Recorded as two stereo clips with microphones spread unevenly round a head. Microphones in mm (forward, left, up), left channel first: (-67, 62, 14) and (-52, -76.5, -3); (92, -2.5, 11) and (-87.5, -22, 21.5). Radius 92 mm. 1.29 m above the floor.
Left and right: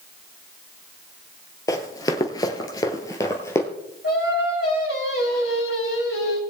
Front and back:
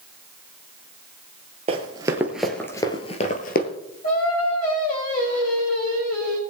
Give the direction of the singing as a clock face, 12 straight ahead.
10 o'clock.